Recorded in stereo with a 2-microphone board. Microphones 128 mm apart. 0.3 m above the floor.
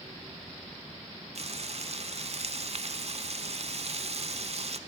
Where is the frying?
55° right (ahead or behind), 0.6 m.